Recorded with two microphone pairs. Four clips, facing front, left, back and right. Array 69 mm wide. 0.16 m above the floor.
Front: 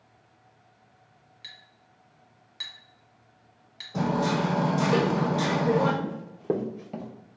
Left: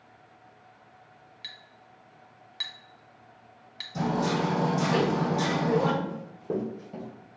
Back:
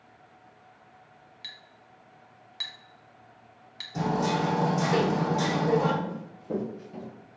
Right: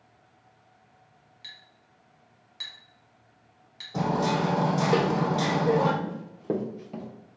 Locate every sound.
1.4 s a clink: 115° left, 0.7 m
3.9 s hammering: 65° right, 1.9 m
6.0 s running footsteps: 40° right, 0.9 m; by 7.1 s 20° right, 1.6 m